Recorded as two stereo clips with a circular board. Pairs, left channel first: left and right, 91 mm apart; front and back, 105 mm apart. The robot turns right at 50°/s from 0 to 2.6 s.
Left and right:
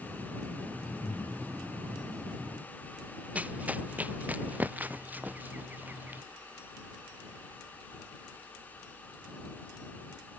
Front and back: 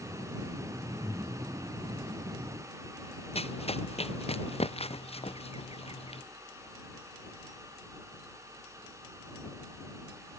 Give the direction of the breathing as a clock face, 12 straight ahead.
8 o'clock.